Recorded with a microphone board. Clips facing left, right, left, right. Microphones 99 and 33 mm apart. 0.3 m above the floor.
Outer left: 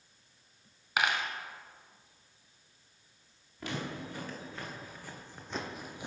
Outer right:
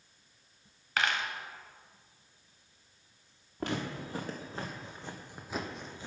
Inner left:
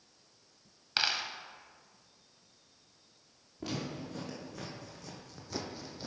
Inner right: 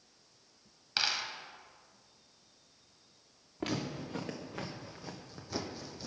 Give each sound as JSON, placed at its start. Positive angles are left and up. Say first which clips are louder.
{"t": 1.0, "sound": "a dropped coin", "louder": "outer left 1 dB, inner left 1 dB", "side_deg": 15, "distance_m": 0.6}
{"t": 3.6, "sound": "footsteps", "louder": "outer right 3 dB, inner right 2 dB", "side_deg": -45, "distance_m": 1.5}